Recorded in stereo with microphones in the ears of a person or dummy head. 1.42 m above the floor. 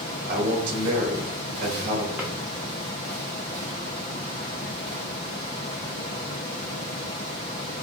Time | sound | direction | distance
0.3 | a man speaking | 55° right (ahead or behind) | 1.3 m
2.2 | a drawer | centre (ahead or behind) | 0.7 m